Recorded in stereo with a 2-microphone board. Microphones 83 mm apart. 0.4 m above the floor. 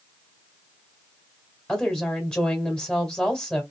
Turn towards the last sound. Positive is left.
turn(degrees=15)  # may be behind; listen again after turning